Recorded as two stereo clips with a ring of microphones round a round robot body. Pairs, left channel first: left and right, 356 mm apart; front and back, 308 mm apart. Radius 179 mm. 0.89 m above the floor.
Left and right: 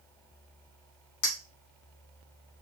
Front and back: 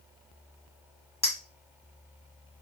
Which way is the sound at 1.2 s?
70° left.